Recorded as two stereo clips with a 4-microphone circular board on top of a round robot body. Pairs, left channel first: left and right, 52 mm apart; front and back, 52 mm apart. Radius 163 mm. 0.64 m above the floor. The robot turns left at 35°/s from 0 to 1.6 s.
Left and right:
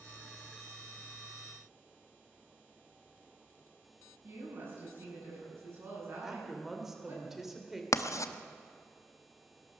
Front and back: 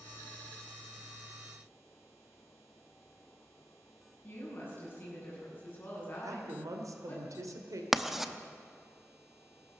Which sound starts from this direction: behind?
A woman speaking, at 6.2 s.